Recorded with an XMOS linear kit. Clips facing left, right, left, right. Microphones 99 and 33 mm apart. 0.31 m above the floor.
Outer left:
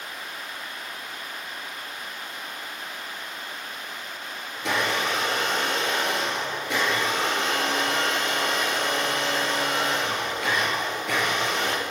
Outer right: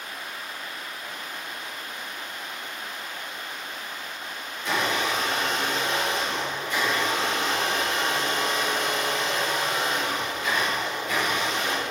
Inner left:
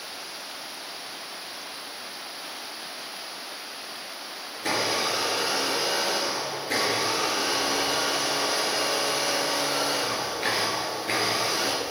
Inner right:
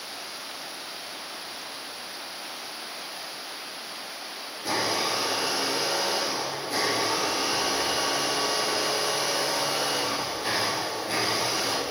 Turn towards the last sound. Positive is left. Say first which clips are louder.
# even, inner left 1 dB
turn(degrees=75)  # may be behind; listen again after turning